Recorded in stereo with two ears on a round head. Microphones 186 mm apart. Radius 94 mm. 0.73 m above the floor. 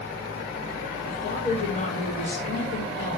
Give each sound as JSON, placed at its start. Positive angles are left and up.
{"t": 1.1, "sound": "a woman speaking", "side_deg": 40, "distance_m": 8.0}